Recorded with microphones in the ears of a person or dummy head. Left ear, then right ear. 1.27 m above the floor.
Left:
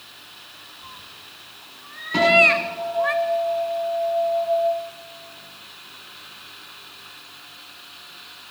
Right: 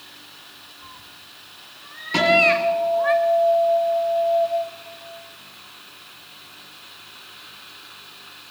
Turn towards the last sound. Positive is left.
turn(degrees=-25)  # may be behind; listen again after turning